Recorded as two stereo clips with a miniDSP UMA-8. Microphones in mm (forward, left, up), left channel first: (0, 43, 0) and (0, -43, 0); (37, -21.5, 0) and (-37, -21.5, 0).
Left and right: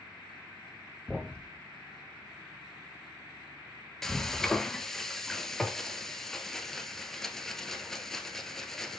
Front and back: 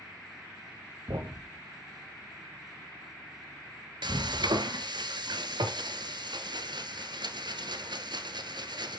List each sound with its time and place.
1.1 s a thud: 175° right, 2 m
4.0 s frying: 175° left, 1.3 m